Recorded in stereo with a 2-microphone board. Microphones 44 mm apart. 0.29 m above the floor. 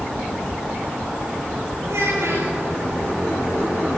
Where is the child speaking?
80° right, 7.5 m.